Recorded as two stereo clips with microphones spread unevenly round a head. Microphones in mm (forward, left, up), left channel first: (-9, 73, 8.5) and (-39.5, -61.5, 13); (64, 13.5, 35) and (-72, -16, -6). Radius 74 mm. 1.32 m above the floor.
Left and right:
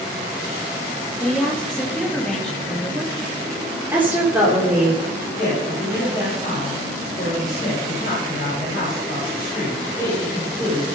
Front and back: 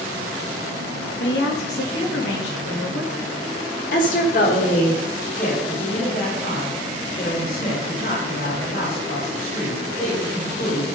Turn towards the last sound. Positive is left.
turn(degrees=35)